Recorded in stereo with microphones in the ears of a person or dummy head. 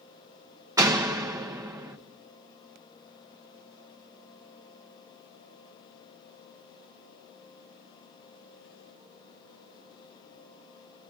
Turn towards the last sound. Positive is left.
turn(degrees=-15)  # may be behind; listen again after turning